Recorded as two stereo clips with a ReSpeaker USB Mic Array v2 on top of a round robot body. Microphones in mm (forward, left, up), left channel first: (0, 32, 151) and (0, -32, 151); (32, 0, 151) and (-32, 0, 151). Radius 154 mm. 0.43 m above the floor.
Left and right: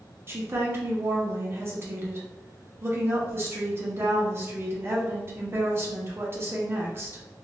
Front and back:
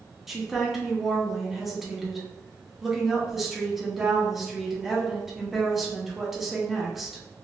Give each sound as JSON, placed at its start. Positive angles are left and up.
{"t": 0.3, "sound": "a woman speaking", "azimuth_deg": -95, "distance_m": 1.3}